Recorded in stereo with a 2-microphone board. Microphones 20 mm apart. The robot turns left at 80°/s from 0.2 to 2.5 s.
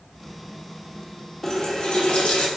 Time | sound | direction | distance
1.4 | a running tap | 160° left | 0.6 m